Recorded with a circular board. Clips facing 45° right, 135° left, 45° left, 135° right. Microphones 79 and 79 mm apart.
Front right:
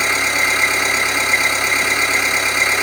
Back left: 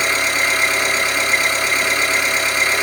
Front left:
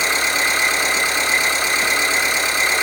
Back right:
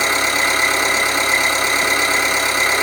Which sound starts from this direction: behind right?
An engine running, at 0.0 s.